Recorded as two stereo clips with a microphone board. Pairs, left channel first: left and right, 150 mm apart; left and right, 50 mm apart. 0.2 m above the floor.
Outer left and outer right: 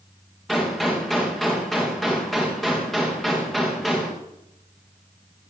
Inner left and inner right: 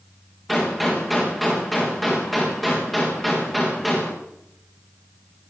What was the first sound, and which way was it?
A gunshot, centre (ahead or behind).